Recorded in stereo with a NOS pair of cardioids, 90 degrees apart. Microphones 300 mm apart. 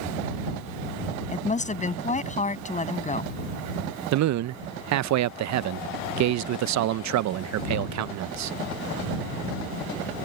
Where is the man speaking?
60° right.